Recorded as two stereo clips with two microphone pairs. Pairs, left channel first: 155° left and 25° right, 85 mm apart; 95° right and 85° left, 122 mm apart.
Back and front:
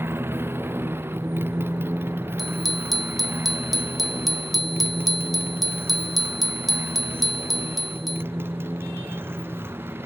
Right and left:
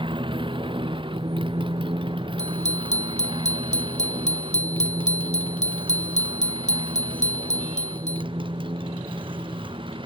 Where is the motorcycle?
40° left.